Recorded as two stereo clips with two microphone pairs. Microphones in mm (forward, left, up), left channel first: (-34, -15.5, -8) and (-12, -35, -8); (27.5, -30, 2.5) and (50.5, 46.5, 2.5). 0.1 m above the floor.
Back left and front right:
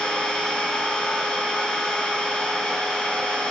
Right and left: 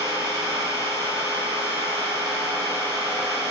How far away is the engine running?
About 1.0 m.